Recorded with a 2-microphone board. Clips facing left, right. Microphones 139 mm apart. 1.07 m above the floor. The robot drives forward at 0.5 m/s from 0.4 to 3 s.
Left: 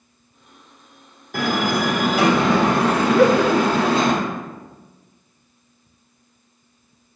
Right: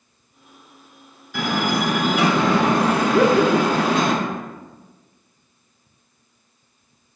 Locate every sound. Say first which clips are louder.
1.3 s a door slam: left 1 dB; 50° left (ahead or behind), 2 m; by 4.1 s 35° left (ahead or behind), 3 m
3.1 s laughter: left 1 dB; 15° right (ahead or behind), 0.7 m